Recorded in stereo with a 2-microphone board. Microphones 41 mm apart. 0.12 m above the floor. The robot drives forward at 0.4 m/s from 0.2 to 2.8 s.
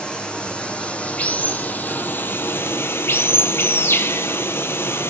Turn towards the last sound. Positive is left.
turn(degrees=70)  # may be behind; listen again after turning